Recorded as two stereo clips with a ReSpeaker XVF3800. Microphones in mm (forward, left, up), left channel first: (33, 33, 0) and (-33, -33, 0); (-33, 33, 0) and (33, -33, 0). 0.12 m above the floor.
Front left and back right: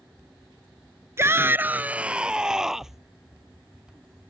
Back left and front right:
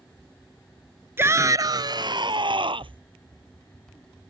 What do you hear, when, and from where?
1.2 s a shout: 95° right; by 3.0 s 50° right